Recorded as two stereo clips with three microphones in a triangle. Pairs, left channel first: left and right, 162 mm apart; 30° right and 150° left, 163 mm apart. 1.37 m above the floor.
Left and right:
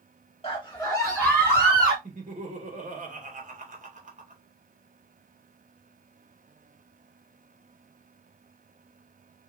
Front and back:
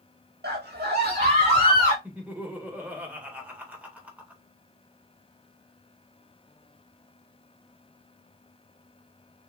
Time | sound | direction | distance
0.4 | a scream | 150° left | 1.4 m
2.0 | laughter | 130° right | 1.8 m